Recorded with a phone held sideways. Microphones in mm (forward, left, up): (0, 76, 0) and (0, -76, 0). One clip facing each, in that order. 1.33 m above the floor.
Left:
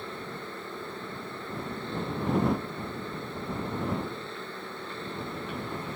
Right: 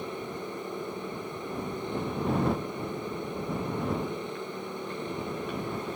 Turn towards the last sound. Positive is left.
turn(degrees=-15)  # may be behind; listen again after turning